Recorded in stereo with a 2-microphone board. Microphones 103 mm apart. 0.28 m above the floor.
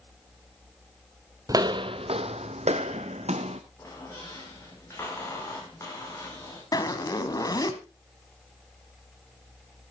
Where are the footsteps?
30° right (ahead or behind), 0.6 m; by 3.6 s 80° right, 1.5 m.